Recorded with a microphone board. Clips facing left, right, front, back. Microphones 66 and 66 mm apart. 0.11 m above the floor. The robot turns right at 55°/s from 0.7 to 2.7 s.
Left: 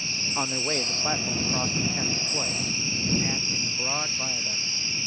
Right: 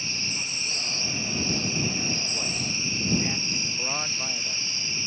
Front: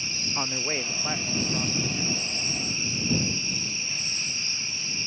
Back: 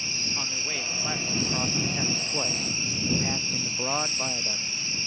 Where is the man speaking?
65° left; by 4.7 s 175° left.